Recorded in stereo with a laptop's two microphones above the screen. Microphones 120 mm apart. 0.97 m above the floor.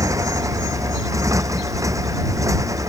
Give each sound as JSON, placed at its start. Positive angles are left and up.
{"t": 0.0, "sound": "a motorcycle", "side_deg": -25}